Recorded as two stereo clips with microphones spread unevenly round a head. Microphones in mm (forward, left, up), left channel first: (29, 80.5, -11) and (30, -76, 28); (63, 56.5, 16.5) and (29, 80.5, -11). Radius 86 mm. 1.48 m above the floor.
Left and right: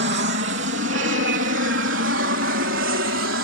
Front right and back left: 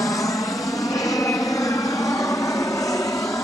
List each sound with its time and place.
0.0 s an aircraft: 90° right; by 3.4 s 100° right